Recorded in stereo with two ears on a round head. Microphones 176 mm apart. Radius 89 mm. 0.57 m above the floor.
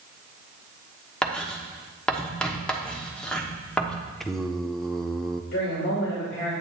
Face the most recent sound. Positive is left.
turn(degrees=65)  # may be behind; listen again after turning